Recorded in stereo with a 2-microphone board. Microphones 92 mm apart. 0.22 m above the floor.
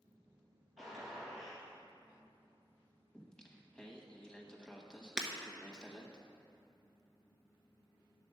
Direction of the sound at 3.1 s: 10° left (ahead or behind).